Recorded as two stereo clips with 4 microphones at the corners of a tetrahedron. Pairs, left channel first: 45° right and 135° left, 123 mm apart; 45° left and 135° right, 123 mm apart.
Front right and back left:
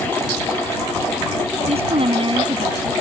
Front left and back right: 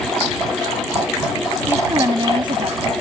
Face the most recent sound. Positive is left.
turn(degrees=-170)